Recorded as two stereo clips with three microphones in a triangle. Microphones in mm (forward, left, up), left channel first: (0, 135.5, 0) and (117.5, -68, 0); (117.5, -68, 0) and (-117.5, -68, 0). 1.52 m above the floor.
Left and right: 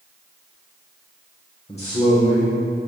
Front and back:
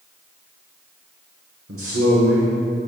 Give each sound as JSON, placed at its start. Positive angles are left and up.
{"t": 1.7, "sound": "a man speaking", "azimuth_deg": 180, "distance_m": 1.2}